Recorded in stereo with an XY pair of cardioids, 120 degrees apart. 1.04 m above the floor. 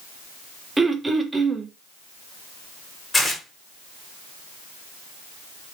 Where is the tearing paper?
20° left, 1.6 m.